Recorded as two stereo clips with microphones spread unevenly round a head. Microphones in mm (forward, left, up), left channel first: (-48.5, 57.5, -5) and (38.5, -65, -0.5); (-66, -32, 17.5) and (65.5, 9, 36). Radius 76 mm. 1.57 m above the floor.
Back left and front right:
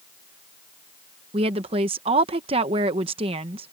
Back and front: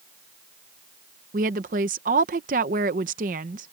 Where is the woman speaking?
5° right.